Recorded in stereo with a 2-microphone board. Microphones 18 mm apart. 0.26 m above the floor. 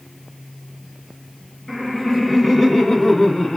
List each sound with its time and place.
1.7 s laughter: 25° left (ahead or behind), 1.7 m; by 3.6 s 45° left (ahead or behind), 2.5 m